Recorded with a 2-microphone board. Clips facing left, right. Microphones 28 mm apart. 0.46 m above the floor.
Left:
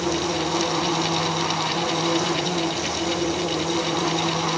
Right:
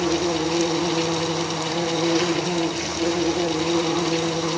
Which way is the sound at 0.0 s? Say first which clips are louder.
Right 2 dB; 60° right (ahead or behind).